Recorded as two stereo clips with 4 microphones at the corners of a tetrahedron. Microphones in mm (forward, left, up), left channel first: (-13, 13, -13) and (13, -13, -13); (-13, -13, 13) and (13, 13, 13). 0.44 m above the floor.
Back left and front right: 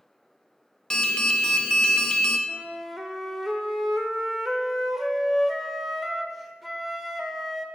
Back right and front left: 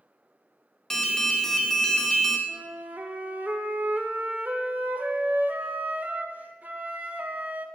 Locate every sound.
0.9 s an alarm: 170° left, 1.0 m
2.5 s a flute: 40° left, 0.8 m